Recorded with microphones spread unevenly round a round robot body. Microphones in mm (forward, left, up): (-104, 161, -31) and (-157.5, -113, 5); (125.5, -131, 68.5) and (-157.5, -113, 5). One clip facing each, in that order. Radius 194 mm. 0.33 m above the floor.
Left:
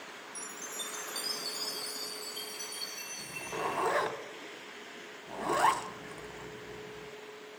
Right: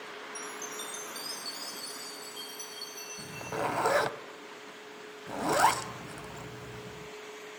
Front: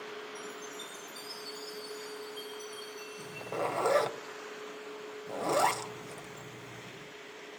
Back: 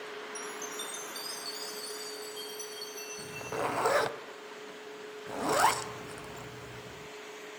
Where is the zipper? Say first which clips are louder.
Right 3 dB, even; 125° right, 2 m.